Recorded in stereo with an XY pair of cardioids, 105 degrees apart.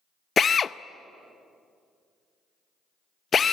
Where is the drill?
40° left, 0.5 m.